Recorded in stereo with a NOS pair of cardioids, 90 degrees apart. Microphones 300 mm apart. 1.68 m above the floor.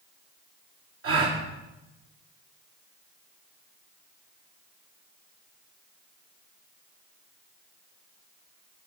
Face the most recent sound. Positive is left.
turn(degrees=-55)